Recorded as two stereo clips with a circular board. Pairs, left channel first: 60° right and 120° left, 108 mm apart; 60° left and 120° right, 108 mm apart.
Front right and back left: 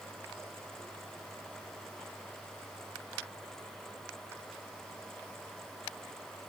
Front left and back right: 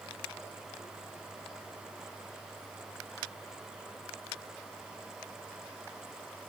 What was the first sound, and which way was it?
Only background noise.